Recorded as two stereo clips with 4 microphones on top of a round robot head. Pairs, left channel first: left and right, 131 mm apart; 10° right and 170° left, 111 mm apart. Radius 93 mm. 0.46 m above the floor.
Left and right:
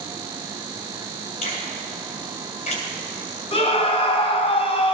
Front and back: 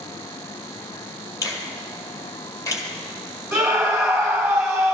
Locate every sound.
1.4 s a finger snap: 50° left, 1.8 m
3.5 s a scream: 85° left, 1.3 m